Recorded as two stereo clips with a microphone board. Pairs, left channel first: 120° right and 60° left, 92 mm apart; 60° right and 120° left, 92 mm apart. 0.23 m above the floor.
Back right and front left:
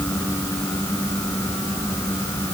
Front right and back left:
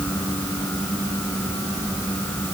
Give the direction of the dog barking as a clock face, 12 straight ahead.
I don't hear a dog barking.